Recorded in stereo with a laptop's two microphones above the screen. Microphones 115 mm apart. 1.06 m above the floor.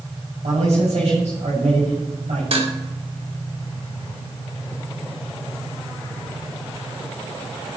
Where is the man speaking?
80° right, 6.5 m.